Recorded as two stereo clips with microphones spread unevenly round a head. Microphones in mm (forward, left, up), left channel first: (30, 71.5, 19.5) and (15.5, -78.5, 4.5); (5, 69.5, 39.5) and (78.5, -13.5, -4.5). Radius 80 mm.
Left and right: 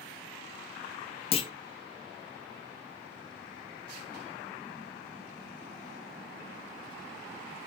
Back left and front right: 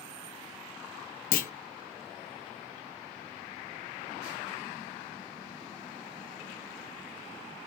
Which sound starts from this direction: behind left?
A clunk, at 1.3 s.